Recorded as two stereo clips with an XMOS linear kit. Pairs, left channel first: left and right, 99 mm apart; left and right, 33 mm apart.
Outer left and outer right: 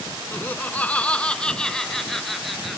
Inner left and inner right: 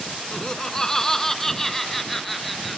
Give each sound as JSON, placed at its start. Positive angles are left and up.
{"t": 0.3, "sound": "laughter", "side_deg": 20}